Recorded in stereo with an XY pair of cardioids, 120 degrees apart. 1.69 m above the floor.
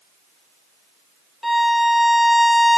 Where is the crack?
I don't hear a crack.